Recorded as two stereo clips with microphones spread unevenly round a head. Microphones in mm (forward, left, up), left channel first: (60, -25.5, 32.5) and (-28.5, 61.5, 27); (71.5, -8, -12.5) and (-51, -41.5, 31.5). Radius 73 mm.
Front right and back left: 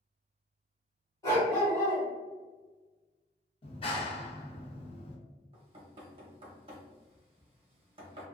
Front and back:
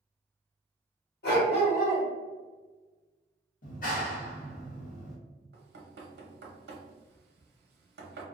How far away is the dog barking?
About 1.5 m.